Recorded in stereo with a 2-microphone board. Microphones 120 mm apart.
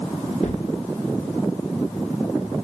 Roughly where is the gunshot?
Left.